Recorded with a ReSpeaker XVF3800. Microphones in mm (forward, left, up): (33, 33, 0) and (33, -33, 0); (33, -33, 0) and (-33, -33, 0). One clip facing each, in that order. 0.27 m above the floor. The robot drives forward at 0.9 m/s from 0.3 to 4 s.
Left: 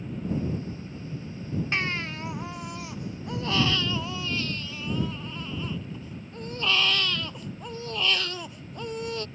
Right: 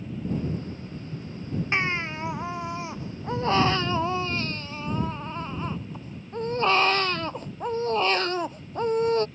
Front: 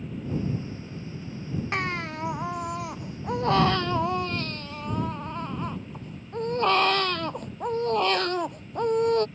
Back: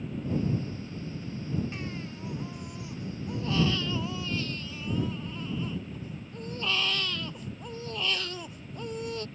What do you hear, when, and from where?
1.7 s a baby crying: 20° right; by 9.3 s 40° right